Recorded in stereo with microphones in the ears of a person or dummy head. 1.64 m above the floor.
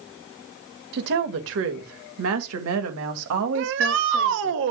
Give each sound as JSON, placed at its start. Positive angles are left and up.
{"t": 0.9, "sound": "a woman speaking", "side_deg": -55, "distance_m": 1.9}
{"t": 3.5, "sound": "a shout", "side_deg": -70, "distance_m": 1.6}